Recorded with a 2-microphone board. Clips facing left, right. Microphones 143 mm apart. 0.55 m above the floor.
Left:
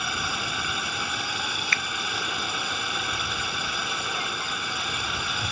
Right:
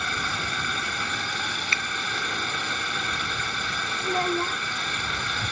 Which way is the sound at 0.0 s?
10° left (ahead or behind).